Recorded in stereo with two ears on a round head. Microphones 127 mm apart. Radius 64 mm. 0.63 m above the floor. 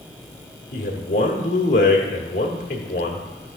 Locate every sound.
0.7 s a man speaking: 60° left (ahead or behind), 1.1 m